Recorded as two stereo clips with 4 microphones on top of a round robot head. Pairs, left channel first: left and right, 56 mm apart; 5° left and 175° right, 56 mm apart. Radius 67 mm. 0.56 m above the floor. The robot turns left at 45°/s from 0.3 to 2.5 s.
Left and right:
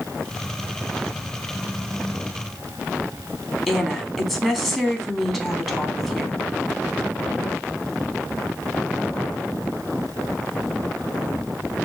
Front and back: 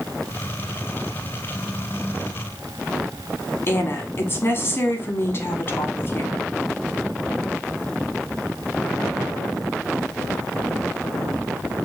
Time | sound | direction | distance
3.7 | a woman speaking | 5° right | 1.4 m